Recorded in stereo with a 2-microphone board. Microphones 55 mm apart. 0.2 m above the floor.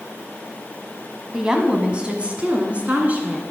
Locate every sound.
1.3 s a woman speaking: 10° right (ahead or behind), 1.2 m; by 3.4 s 25° right (ahead or behind), 2 m